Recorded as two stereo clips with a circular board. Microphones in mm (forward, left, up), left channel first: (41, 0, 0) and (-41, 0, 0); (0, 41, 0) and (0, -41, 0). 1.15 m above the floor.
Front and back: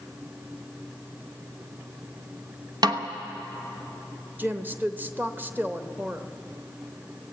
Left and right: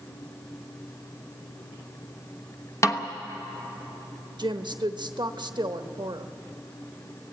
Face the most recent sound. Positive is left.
turn(degrees=-115)